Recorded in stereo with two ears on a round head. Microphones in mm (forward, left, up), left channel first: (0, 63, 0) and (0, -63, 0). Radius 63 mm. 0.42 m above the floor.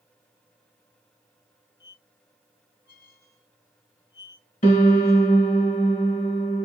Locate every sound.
1.8 s a squeak: 70° left (ahead or behind), 1.1 m
4.6 s a piano: 55° left (ahead or behind), 1.1 m